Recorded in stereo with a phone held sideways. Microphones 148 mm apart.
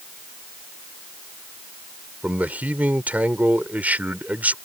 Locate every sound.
2.2 s a man speaking: 10° right (ahead or behind)